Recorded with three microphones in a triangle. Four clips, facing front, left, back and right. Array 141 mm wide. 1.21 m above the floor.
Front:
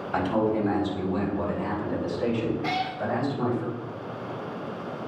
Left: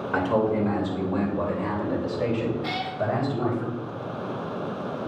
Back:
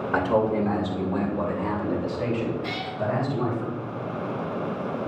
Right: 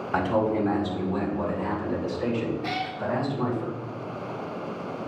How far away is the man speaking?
About 2.5 m.